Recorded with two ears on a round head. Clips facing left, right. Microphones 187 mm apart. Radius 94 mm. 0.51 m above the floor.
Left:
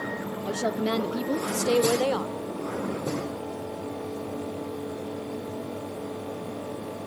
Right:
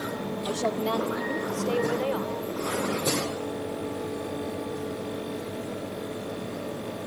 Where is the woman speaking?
Centre (ahead or behind), 0.8 m; by 2.4 s 55° left (ahead or behind), 1.6 m.